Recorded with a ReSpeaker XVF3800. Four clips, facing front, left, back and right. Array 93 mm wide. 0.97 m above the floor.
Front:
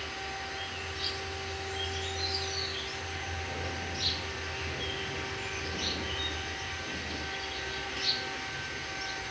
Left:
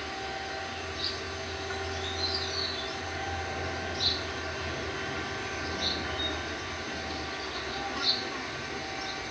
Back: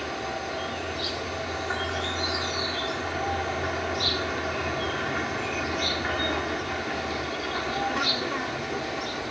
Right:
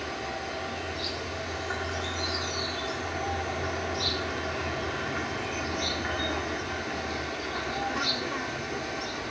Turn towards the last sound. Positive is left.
turn(degrees=-170)